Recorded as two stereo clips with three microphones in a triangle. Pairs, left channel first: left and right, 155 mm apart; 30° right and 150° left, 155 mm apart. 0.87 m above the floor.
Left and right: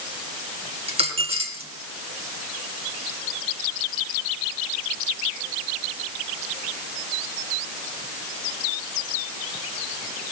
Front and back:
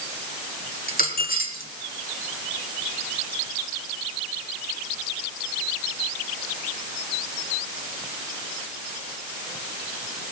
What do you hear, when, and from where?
0.9 s a dropped coin: 40° right, 2.0 m